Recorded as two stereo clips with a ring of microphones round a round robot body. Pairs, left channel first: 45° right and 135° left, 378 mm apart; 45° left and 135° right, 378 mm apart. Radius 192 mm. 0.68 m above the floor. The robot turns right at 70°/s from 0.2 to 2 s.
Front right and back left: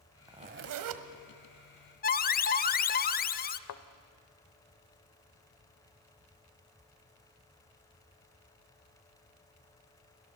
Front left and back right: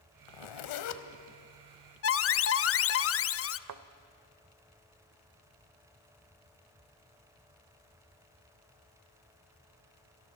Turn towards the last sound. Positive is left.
turn(degrees=-90)